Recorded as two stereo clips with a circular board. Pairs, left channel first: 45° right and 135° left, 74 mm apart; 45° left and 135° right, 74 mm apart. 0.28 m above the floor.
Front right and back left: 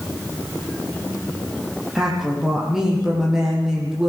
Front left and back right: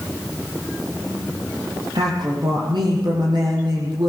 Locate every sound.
1.9 s a woman speaking: 140° right, 8.5 m